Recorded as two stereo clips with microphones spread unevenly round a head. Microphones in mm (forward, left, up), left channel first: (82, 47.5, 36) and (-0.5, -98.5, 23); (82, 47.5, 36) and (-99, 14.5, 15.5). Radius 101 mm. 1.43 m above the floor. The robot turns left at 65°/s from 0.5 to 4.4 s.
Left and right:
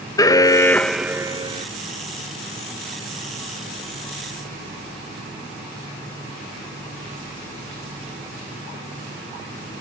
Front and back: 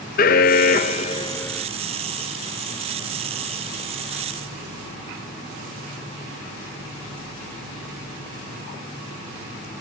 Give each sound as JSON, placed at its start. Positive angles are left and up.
{"t": 0.2, "sound": "an alarm", "azimuth_deg": 0, "distance_m": 0.8}